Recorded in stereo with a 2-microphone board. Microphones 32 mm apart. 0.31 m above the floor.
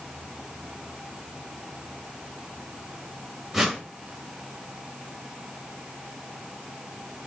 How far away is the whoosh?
About 1.4 m.